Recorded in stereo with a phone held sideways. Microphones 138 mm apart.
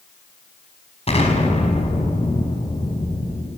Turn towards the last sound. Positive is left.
turn(degrees=45)  # may be behind; listen again after turning